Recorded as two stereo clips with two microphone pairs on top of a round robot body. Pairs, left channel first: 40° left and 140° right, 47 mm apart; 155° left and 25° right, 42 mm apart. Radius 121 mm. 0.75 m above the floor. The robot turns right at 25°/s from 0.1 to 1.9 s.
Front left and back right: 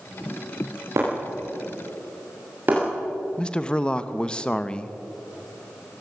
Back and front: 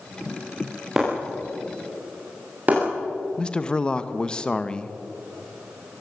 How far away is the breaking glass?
About 7.5 m.